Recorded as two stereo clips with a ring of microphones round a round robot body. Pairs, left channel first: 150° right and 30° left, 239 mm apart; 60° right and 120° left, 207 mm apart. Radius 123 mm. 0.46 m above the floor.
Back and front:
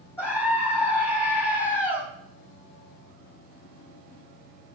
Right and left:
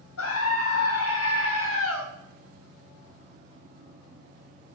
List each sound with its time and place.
0.2 s a scream: 65° right, 3 m